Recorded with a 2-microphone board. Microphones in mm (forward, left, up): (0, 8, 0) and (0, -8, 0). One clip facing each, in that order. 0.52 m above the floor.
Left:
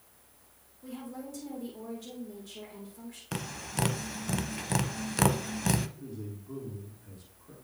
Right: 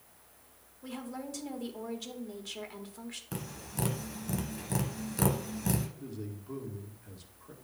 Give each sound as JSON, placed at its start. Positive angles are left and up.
{"t": 0.8, "sound": "a woman speaking", "side_deg": -35, "distance_m": 1.5}
{"t": 3.3, "sound": "tapping", "side_deg": 35, "distance_m": 0.6}
{"t": 6.0, "sound": "a man speaking", "side_deg": -30, "distance_m": 1.4}